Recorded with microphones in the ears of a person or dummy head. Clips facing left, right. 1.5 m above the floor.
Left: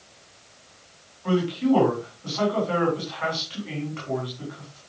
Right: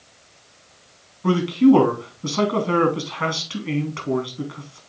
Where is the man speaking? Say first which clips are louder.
Right 7 dB; 60° right (ahead or behind), 2.5 m.